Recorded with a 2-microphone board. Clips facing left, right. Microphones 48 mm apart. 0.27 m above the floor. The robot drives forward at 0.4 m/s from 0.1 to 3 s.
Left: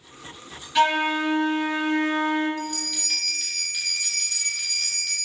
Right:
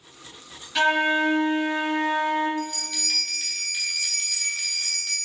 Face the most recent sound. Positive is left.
turn(degrees=-5)  # may be behind; listen again after turning